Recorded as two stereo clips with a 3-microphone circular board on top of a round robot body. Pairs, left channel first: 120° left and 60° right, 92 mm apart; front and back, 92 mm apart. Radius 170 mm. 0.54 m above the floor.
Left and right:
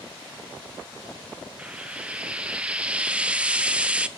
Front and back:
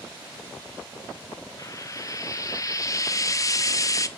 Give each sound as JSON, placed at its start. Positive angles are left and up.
{"t": 1.6, "sound": "frying", "azimuth_deg": 10, "distance_m": 0.6}